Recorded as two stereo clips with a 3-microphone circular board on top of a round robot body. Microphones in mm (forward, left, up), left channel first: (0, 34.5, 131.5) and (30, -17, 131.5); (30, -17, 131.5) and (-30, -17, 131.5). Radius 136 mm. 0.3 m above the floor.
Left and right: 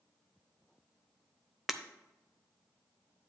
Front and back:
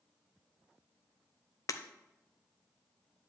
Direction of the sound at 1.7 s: 25° left.